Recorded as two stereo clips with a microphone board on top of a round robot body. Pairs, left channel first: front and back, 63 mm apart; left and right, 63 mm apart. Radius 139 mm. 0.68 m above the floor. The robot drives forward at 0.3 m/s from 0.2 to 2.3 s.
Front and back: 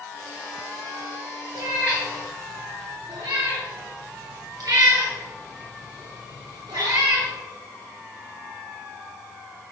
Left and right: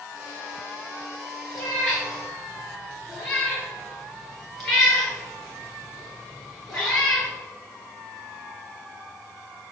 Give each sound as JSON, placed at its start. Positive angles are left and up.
{"t": 1.6, "sound": "a cat meowing", "azimuth_deg": 170, "distance_m": 2.5}